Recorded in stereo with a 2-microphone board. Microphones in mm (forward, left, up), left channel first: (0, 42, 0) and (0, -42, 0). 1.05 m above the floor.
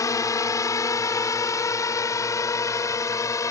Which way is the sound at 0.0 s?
40° left (ahead or behind).